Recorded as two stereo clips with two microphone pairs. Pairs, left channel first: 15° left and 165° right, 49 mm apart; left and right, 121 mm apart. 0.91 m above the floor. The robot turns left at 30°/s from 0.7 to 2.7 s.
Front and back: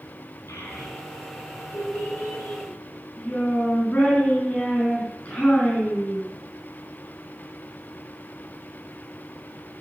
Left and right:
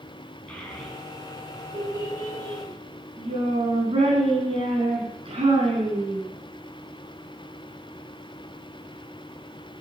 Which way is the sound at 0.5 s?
5° left.